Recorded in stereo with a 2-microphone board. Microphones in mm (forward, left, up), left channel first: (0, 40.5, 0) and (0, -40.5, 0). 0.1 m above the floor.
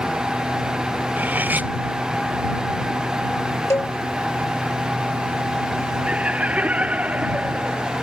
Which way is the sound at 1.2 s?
20° right (ahead or behind).